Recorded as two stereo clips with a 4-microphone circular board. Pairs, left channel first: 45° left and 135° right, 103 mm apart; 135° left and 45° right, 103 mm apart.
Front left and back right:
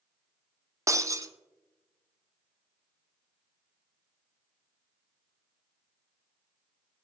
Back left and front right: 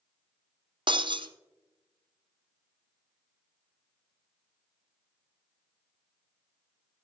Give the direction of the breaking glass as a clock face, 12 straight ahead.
3 o'clock.